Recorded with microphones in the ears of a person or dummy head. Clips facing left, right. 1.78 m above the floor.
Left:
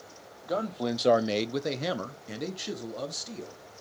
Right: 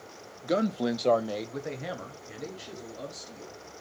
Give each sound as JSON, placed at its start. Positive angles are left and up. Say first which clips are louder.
{"t": 0.4, "sound": "a man speaking", "louder": "right 3 dB", "side_deg": -35, "distance_m": 0.8}